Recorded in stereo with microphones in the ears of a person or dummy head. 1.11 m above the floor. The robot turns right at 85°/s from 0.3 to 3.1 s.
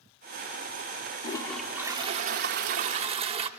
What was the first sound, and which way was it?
A toilet flushing, 150° left.